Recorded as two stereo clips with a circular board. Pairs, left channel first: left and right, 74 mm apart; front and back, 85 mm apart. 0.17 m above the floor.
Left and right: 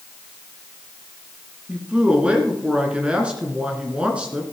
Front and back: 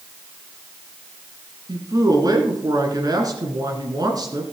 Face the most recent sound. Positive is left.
turn(degrees=-160)